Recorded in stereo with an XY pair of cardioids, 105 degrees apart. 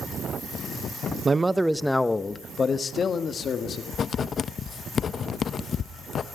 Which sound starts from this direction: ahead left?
Writing, at 3.9 s.